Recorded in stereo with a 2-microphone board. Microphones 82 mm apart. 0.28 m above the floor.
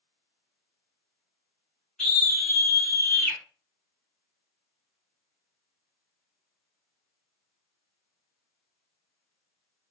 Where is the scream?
5° left (ahead or behind), 1.2 m; by 3.4 s 10° left (ahead or behind), 2 m.